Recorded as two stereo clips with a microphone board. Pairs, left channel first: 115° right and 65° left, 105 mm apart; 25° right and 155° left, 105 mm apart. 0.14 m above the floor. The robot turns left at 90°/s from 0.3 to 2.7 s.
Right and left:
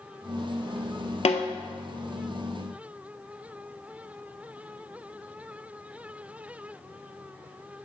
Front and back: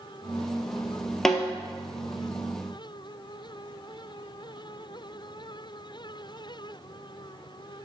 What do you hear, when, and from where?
1.2 s a snare drum: 110° right, 0.6 m; by 1.5 s 130° right, 0.6 m